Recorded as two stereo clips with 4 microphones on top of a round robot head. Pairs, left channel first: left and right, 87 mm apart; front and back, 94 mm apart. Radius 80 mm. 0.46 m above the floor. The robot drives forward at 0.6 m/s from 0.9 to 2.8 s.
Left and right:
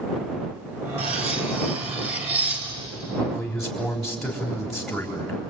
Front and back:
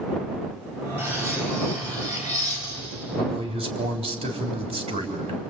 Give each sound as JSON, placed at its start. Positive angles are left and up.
{"t": 1.0, "sound": "cutlery clinking", "azimuth_deg": -105, "distance_m": 4.0}
{"t": 3.2, "sound": "a man speaking", "azimuth_deg": 180, "distance_m": 3.5}